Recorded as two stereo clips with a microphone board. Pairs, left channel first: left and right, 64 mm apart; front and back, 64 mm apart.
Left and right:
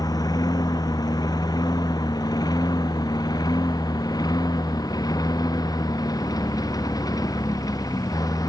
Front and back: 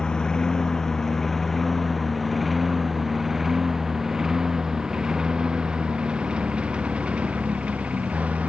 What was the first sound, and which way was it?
A lawn mower, 80° left.